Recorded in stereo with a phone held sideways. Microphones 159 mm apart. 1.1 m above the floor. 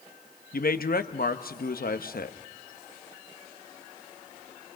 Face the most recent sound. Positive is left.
turn(degrees=70)  # may be behind; listen again after turning